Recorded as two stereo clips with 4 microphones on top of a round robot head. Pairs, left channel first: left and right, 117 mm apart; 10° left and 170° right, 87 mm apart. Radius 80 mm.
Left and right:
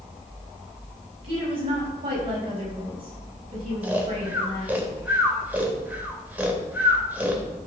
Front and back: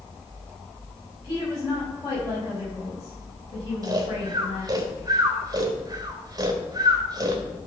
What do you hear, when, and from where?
1.2 s a woman speaking: 50° right, 4.5 m
3.8 s snoring: 165° right, 1.3 m